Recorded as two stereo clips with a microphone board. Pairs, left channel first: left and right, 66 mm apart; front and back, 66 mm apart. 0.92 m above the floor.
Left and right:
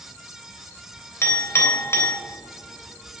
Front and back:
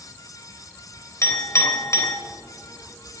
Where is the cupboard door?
No cupboard door in this recording.